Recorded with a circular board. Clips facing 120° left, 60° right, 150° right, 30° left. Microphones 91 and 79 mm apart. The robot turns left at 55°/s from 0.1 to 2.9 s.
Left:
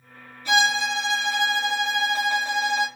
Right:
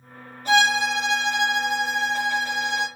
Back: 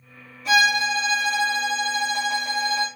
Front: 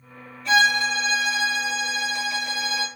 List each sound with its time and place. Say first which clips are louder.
0.5 s a violin: right 2 dB, even; 65° right, 2.0 m; by 2.9 s 160° left, 2.0 m